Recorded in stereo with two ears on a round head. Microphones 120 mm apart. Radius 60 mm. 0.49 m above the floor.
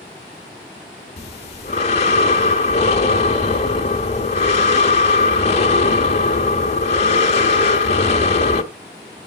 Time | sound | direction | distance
1.2 | breathing | 50° left (ahead or behind) | 1.1 m